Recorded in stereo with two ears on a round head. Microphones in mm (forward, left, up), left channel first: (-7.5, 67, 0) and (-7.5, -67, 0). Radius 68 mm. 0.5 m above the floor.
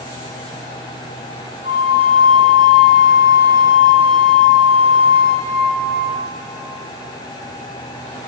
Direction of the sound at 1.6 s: 45° right (ahead or behind).